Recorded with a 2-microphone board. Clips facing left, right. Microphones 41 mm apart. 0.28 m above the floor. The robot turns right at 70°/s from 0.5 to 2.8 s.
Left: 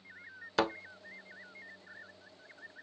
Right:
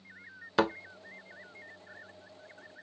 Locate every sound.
0.6 s a thud: 15° right (ahead or behind), 0.6 m; by 0.7 s 25° right (ahead or behind), 0.6 m